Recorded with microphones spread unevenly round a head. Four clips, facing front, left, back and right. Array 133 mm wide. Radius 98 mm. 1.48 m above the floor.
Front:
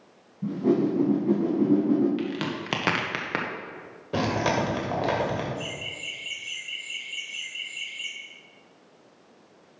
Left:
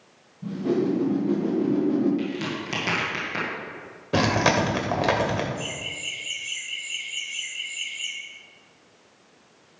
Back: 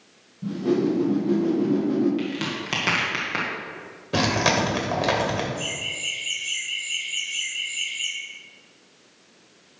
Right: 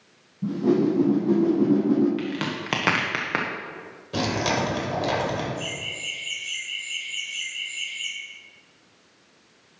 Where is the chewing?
130° left, 2.5 m.